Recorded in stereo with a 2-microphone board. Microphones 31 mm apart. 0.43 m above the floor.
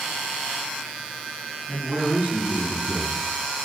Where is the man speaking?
70° right (ahead or behind), 6 m.